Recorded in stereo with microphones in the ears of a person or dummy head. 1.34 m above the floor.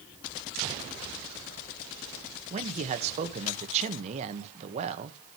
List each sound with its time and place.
2.5 s a man speaking: 40° right (ahead or behind), 1.4 m